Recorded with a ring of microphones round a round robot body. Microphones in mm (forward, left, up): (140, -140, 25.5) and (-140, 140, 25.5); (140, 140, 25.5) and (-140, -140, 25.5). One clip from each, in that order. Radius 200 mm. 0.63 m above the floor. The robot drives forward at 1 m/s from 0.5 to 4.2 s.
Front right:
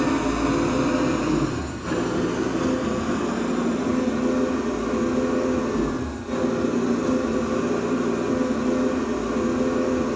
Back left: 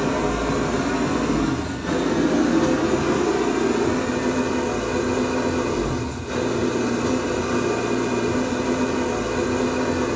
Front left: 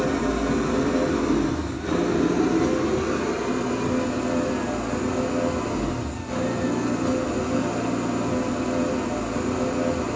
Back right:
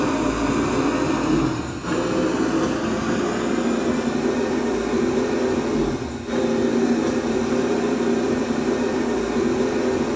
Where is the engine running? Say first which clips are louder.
Even, back right 2 dB; 100° right, 3.5 m; by 10.2 s 140° right, 5.5 m.